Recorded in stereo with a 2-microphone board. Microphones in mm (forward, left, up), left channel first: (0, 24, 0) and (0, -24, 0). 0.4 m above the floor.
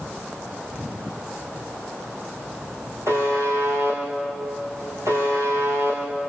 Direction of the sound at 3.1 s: 70° right (ahead or behind).